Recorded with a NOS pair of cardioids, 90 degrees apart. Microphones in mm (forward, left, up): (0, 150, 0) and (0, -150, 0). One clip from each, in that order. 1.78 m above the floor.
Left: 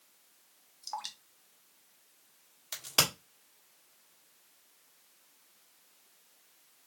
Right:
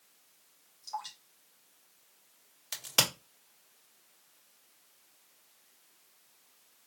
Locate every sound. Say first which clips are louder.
0.8 s dripping: even; 45° left, 1.2 m
2.7 s a crack: even; 10° right, 1.6 m